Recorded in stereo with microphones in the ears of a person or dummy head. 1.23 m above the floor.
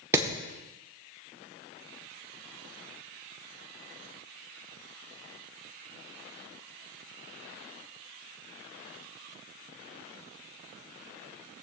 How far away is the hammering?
About 1.8 m.